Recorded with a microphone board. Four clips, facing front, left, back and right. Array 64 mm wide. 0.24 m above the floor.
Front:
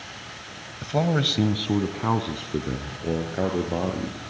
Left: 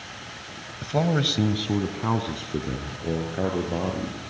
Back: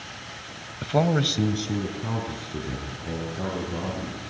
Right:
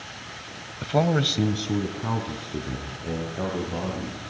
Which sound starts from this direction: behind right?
A man speaking, at 0.8 s.